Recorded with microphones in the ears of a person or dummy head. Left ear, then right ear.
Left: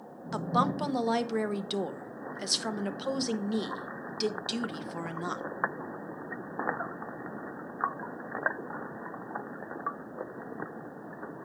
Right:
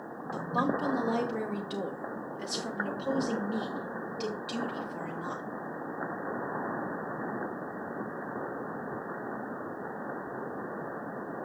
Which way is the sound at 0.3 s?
45° left (ahead or behind).